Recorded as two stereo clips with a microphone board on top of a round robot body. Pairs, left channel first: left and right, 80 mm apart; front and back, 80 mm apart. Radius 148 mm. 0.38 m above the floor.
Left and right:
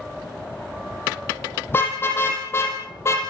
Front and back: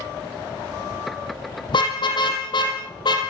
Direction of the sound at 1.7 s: 25° left.